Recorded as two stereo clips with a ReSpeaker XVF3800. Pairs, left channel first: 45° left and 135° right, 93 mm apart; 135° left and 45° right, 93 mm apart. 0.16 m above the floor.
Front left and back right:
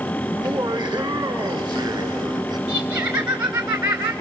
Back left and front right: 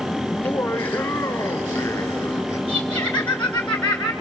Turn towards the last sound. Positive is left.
turn(degrees=-155)